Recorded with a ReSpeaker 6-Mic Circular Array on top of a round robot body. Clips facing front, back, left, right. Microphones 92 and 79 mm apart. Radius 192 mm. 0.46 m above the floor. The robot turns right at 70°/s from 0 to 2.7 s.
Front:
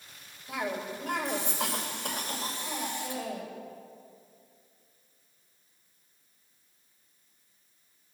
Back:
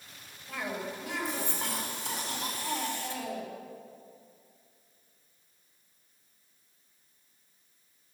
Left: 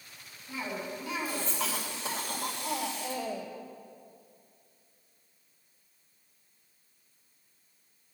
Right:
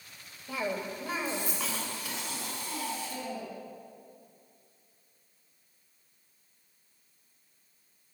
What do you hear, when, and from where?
0.5 s a cough: 80° right, 3 m; by 3.5 s 75° left, 3 m